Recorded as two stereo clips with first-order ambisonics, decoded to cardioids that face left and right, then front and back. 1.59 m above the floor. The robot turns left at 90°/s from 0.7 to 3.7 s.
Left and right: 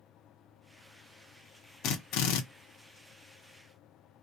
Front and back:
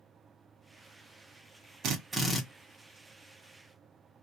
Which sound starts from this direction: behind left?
A drill, at 1.8 s.